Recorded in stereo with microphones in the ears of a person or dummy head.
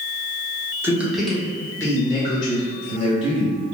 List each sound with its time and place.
0.8 s a man speaking: 15° right (ahead or behind), 1.0 m; by 3.6 s 40° left (ahead or behind), 2 m